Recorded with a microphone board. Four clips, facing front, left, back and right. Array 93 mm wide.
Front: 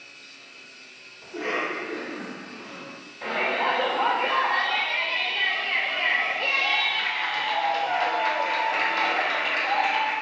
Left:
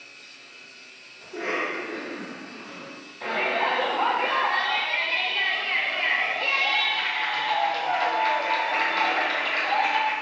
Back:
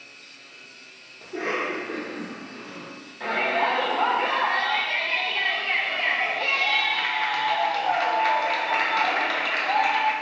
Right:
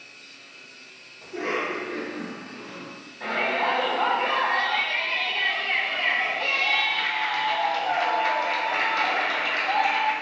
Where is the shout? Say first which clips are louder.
Even, back 2 dB; 175° right, 1.1 m.